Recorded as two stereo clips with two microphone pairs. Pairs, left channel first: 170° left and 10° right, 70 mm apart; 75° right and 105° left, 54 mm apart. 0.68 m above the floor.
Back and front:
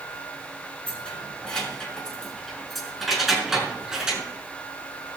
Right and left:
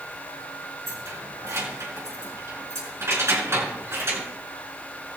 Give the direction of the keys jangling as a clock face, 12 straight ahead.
9 o'clock.